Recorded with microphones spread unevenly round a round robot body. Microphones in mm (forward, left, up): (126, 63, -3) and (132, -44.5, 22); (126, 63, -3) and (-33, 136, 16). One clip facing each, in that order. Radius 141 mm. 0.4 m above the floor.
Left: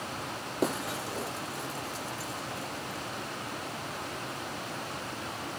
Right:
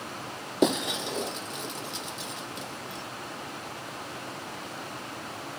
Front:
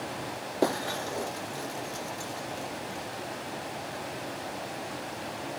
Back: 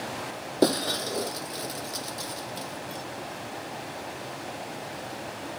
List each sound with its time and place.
0.6 s breaking glass: 140° right